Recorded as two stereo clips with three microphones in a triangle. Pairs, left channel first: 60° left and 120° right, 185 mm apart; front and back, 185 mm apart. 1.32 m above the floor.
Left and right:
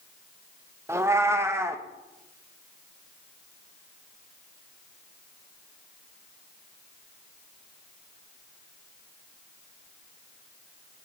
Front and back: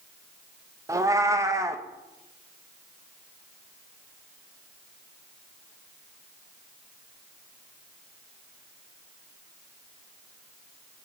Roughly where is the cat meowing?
Behind right.